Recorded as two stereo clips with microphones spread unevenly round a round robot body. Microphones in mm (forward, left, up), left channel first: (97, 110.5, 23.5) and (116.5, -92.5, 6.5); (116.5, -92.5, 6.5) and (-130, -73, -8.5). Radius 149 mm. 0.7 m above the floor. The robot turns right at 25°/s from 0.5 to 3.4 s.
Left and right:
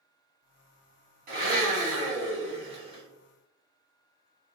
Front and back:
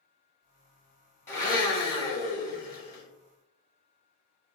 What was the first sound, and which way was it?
A blender, 85° right.